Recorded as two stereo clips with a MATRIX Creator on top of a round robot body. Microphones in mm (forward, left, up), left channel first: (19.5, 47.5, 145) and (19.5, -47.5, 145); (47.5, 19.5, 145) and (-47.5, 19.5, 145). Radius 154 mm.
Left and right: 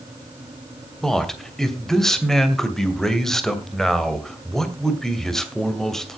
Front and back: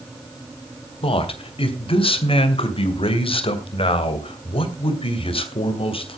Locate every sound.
1.0 s a man speaking: 5° left, 2.5 m